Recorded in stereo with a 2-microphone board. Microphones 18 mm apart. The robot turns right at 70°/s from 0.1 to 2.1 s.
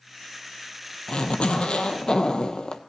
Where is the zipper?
60° left, 1.1 m; by 2.8 s 130° left, 1.1 m.